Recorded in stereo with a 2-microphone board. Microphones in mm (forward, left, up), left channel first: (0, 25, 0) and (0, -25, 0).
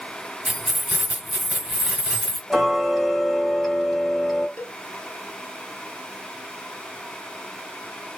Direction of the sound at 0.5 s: 15° right (ahead or behind).